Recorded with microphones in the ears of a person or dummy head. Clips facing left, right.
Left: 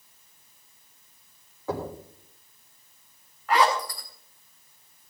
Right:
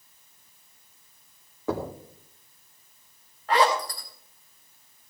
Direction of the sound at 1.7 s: 60° right (ahead or behind).